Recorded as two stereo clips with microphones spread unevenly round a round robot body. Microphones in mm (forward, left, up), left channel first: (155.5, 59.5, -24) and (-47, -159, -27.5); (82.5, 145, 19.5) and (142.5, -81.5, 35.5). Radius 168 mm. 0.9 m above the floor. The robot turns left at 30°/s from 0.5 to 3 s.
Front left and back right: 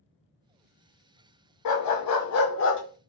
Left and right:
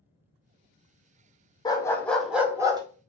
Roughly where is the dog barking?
Ahead left.